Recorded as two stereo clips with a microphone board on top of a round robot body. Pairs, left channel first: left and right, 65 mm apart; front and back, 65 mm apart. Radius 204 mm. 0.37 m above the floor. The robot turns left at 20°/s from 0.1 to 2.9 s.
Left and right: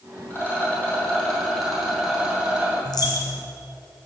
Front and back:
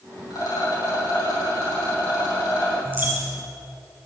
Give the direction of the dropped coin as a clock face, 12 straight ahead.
8 o'clock.